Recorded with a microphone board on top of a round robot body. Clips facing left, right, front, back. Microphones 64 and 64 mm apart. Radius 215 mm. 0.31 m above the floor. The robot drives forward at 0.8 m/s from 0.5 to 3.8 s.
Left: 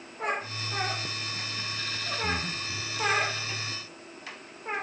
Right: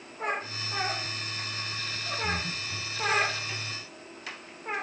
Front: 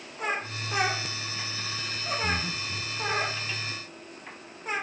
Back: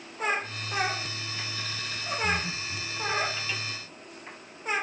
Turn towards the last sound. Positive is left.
turn(degrees=65)